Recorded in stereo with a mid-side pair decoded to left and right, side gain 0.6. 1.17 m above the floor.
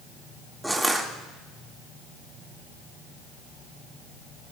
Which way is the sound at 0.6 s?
5° right.